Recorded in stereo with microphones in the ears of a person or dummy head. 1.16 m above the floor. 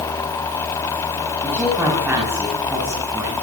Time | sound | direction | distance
1.4 | a woman speaking | 5° right (ahead or behind) | 7.5 m